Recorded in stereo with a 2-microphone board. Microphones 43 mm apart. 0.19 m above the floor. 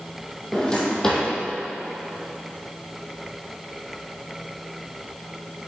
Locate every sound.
0.5 s a drawer: 15° left (ahead or behind), 1.7 m